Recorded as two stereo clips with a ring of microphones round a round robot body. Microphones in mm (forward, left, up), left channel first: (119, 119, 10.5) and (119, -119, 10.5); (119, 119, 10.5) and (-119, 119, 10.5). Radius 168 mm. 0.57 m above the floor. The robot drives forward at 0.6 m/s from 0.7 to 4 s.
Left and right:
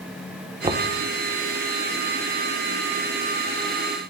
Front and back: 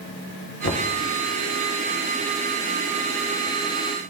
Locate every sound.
0.6 s knocking: 30° right, 1.5 m